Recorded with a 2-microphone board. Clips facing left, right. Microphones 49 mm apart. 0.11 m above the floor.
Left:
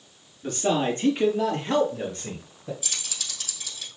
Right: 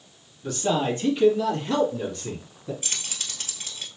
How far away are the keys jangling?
About 1.7 m.